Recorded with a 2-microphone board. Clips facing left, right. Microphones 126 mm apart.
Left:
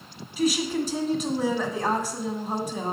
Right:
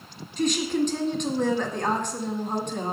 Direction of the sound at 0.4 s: 5° left (ahead or behind).